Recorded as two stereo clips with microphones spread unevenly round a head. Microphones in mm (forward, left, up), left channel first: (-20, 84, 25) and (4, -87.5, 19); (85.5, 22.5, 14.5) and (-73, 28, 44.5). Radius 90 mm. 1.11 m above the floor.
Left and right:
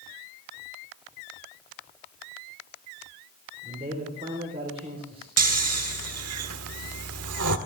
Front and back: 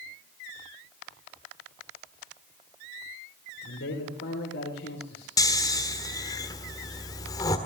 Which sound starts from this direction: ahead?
A man speaking, at 3.6 s.